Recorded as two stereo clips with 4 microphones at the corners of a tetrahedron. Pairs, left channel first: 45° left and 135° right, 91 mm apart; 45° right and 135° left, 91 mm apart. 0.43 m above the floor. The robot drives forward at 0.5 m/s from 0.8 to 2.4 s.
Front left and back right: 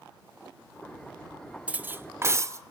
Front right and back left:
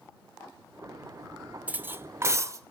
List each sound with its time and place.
1.7 s cutlery clinking: 175° left, 0.5 m; by 2.6 s straight behind, 0.8 m